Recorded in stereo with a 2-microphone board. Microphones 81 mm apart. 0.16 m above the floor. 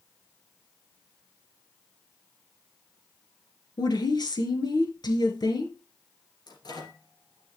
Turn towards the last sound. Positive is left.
turn(degrees=60)  # may be behind; listen again after turning